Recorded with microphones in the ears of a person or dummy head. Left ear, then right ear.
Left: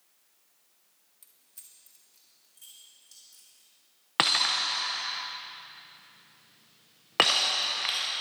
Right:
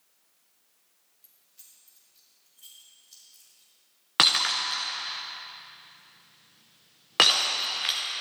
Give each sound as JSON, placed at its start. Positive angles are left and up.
{"t": 1.2, "sound": "keys jangling", "side_deg": 40, "distance_m": 1.4}
{"t": 4.2, "sound": "breaking glass", "side_deg": 5, "distance_m": 0.7}